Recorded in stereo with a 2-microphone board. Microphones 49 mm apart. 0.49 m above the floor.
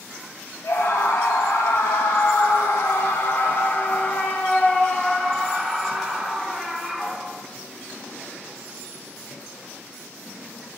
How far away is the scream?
About 2.5 m.